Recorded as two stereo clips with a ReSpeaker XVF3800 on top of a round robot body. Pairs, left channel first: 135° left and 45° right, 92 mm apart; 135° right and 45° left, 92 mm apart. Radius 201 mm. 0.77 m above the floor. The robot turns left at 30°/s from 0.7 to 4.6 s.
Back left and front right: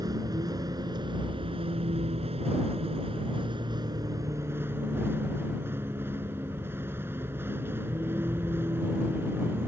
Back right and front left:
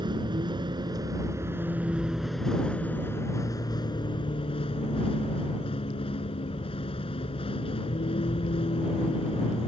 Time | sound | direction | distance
0.0 | a vehicle | 5° left | ?